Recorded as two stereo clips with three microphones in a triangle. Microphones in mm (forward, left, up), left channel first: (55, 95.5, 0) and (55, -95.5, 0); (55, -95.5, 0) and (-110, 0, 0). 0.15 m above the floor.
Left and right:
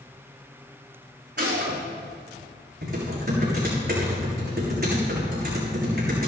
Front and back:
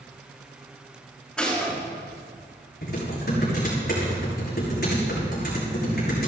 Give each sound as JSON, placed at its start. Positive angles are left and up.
{"t": 1.4, "sound": "a gunshot", "azimuth_deg": -115, "distance_m": 7.0}
{"t": 2.8, "sound": "typing on a keyboard", "azimuth_deg": -60, "distance_m": 7.0}